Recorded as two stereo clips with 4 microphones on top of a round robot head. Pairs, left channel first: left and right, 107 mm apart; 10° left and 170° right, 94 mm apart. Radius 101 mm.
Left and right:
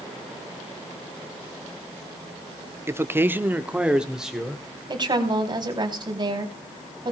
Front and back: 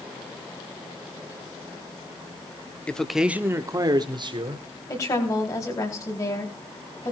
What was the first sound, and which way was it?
A man speaking, 50° right.